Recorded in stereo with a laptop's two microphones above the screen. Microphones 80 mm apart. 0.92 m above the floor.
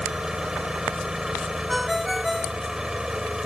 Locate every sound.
0.0 s an engine running: 10° right (ahead or behind)
1.7 s a ringtone: centre (ahead or behind)